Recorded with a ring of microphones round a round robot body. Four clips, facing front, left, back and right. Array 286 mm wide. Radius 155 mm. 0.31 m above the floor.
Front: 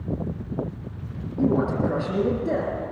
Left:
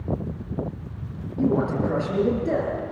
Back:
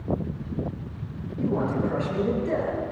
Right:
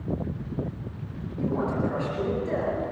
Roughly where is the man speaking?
Ahead left.